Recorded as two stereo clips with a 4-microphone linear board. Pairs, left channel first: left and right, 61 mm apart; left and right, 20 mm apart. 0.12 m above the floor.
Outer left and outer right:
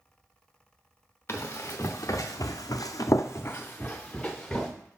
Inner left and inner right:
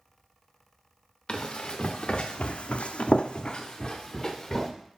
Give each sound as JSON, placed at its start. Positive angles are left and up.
{"t": 1.3, "sound": "running footsteps", "side_deg": 40, "distance_m": 1.1}